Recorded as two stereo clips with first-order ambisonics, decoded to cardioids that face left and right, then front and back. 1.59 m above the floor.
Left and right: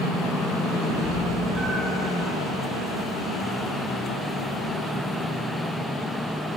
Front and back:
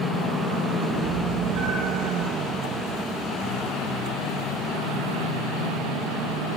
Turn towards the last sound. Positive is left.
turn(degrees=180)